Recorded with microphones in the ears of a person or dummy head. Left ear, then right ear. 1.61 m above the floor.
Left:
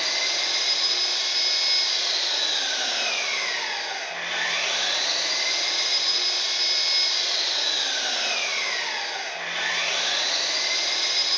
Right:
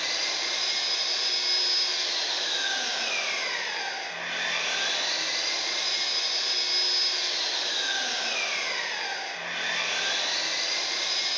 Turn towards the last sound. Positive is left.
turn(degrees=85)